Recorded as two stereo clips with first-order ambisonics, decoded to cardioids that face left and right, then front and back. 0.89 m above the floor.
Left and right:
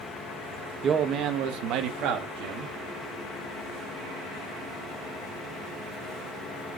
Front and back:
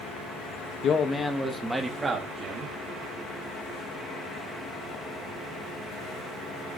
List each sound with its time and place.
0.8 s a man speaking: 40° right, 1.0 m; by 2.7 s 115° right, 2 m